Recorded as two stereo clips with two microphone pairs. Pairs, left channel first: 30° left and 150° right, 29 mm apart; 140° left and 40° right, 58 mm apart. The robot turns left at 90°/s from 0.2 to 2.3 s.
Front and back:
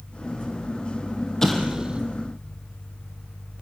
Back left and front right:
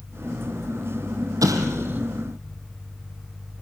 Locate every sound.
1.4 s an explosion: 50° right, 3.5 m; by 2.0 s 105° right, 3.5 m